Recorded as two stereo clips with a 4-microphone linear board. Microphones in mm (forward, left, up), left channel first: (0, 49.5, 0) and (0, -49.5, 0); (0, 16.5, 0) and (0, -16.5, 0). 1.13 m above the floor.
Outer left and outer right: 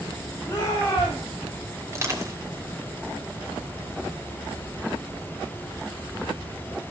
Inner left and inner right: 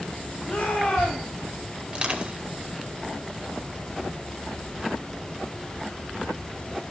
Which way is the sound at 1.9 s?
30° right (ahead or behind).